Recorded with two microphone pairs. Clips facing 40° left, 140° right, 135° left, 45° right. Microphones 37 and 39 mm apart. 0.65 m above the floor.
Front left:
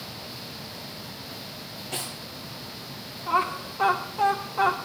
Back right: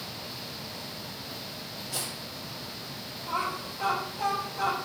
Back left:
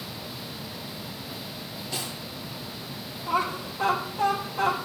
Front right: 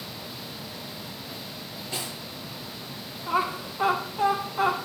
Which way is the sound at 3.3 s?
25° left.